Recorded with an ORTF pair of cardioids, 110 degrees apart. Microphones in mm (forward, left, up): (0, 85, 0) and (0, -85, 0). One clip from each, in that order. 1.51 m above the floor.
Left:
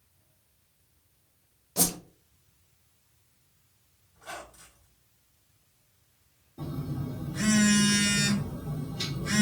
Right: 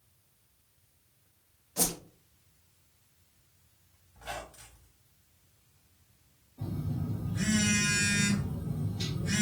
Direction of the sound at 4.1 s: 10° right.